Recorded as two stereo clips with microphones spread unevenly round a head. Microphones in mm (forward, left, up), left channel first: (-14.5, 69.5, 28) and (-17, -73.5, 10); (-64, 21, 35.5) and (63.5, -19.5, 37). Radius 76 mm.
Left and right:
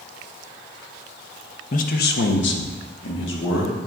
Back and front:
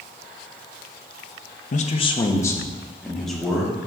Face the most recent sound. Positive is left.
turn(degrees=70)